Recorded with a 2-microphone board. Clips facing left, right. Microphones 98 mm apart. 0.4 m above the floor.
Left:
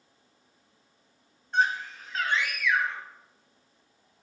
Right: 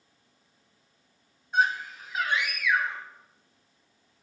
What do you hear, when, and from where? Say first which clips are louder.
1.5 s a scream: right 1 dB; 5° right (ahead or behind), 2.5 m; by 3.0 s 15° right (ahead or behind), 3.5 m